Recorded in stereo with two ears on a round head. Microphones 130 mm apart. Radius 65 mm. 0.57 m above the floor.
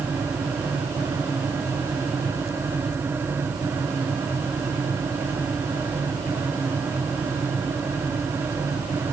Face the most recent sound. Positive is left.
No sound to turn to.